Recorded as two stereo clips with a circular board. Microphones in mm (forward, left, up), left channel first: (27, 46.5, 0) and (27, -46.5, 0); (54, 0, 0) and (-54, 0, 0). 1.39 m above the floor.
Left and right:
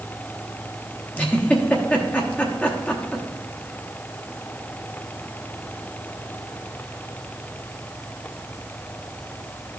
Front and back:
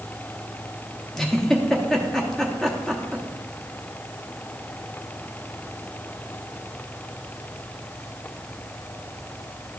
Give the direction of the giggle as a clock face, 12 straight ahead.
9 o'clock.